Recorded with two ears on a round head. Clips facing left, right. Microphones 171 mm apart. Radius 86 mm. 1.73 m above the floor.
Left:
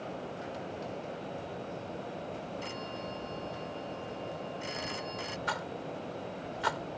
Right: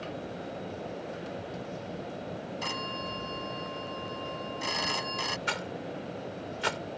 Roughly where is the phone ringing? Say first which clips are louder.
Right 2 dB; right.